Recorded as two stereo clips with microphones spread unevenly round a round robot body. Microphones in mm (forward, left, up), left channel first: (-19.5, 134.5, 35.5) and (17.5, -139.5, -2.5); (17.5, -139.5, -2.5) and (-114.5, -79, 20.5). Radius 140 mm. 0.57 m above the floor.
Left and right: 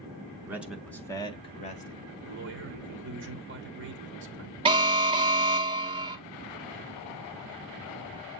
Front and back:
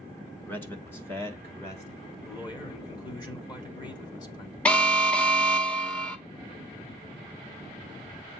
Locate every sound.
0.4 s a man speaking: 45° right, 0.9 m; by 2.0 s 35° left, 1.3 m
2.2 s a man speaking: 65° right, 1.2 m
4.7 s an alarm: 75° right, 0.6 m